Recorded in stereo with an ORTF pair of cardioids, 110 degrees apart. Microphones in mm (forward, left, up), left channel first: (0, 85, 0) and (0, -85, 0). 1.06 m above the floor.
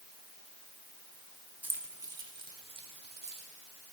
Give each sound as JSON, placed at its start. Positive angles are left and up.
{"t": 1.6, "sound": "keys jangling", "azimuth_deg": -10, "distance_m": 1.8}